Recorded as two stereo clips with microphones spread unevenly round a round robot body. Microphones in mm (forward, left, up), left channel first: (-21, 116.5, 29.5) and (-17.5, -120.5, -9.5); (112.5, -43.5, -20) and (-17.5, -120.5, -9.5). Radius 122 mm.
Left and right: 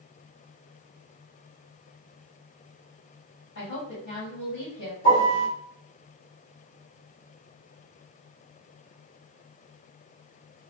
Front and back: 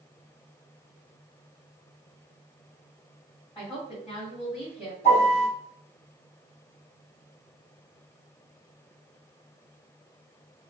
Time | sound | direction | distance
3.5 | a woman speaking | 120° left | 1.8 m
5.0 | a piano | 115° left | 1.9 m